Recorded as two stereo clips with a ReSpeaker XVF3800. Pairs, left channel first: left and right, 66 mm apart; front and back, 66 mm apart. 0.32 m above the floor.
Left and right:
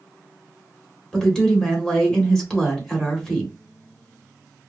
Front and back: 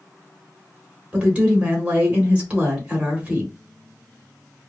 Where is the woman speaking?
150° left, 1.2 m.